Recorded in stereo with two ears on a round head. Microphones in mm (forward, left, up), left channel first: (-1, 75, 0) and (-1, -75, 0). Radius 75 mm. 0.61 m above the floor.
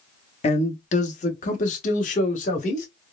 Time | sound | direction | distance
0.4 | a man speaking | 40° left (ahead or behind) | 0.8 m